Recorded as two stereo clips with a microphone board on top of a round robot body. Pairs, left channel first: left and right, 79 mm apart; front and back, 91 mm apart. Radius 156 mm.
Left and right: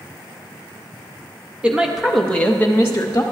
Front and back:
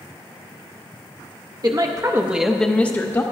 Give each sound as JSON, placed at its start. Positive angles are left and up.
{"t": 1.6, "sound": "a woman speaking", "azimuth_deg": -160, "distance_m": 1.2}